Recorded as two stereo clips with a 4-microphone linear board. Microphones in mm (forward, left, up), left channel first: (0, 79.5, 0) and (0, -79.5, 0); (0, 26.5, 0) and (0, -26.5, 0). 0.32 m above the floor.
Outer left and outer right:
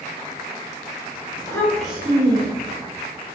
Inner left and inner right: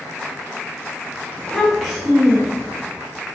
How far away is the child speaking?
About 0.7 m.